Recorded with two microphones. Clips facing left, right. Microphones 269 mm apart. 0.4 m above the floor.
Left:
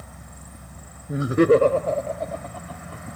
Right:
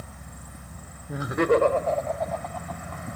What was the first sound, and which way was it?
Laughter, 20° left (ahead or behind).